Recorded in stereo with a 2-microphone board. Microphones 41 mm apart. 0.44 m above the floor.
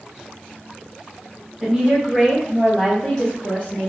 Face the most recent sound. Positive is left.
turn(degrees=30)  # may be behind; listen again after turning